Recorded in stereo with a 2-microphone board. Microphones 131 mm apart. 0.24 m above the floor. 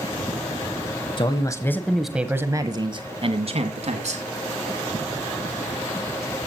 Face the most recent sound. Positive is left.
turn(degrees=-60)  # may be behind; listen again after turning